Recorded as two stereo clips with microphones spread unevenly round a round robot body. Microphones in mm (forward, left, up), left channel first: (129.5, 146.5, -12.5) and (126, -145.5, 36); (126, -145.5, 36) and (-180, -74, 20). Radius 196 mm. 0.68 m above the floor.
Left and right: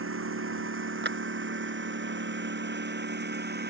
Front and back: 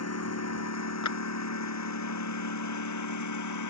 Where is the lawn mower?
50° right; by 3.7 s 35° right.